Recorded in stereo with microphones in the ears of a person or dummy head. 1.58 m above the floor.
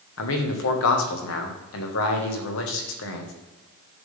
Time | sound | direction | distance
0.2 | a man speaking | 75° left (ahead or behind) | 1.5 m